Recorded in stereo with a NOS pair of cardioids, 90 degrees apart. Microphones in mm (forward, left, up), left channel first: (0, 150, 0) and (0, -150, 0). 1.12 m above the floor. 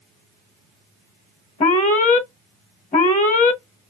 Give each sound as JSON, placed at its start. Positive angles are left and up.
{"t": 1.6, "sound": "an alarm", "azimuth_deg": 25, "distance_m": 0.7}